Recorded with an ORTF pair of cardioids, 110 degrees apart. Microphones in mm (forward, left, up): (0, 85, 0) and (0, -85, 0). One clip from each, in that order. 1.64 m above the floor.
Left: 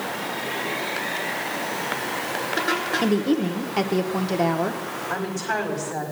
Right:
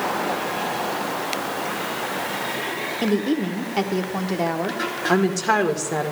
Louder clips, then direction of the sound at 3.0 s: Even; 5° left.